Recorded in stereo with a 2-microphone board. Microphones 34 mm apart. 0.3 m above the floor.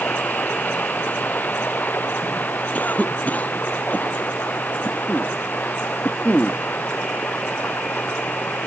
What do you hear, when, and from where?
0.0 s running water: 60° left (ahead or behind)
2.7 s a cough: 50° left (ahead or behind)